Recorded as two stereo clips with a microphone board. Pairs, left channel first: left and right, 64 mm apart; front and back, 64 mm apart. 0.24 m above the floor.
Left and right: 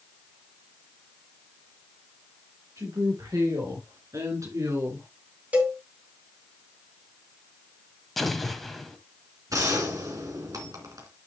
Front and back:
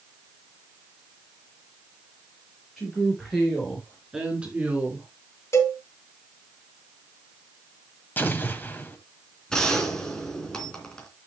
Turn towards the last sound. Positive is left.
turn(degrees=-80)